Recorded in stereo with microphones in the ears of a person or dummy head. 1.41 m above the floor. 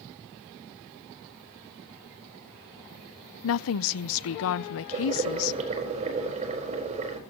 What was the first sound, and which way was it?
A woman speaking, 70° left (ahead or behind).